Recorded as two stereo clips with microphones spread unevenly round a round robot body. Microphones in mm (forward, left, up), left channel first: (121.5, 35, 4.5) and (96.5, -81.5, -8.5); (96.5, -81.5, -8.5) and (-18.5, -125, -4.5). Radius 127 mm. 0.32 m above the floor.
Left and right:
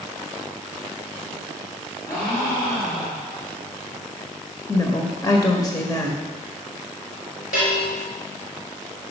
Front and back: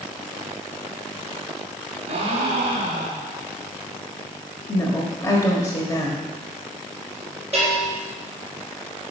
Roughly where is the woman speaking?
Ahead left.